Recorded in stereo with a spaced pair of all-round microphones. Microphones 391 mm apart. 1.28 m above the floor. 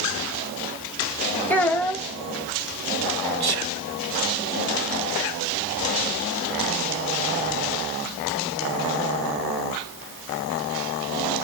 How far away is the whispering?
About 0.5 m.